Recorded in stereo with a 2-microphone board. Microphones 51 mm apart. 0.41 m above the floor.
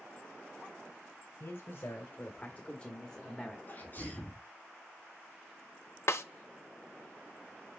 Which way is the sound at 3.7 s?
35° left (ahead or behind).